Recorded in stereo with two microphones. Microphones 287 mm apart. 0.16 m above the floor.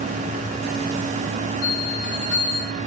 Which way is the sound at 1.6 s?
60° right (ahead or behind).